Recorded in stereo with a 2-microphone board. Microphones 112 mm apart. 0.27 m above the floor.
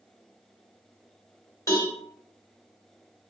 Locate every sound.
1.7 s a cowbell: 35° left (ahead or behind), 2.0 m